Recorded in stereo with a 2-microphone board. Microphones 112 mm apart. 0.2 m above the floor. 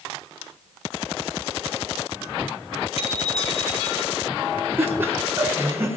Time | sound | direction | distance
3.0 | a bicycle bell | 65° left (ahead or behind) | 3 m
4.8 | laughter | 20° right (ahead or behind) | 4 m